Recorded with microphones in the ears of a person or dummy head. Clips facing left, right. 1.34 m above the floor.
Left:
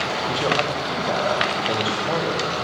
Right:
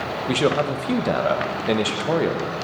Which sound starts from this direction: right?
A man speaking, at 0.3 s.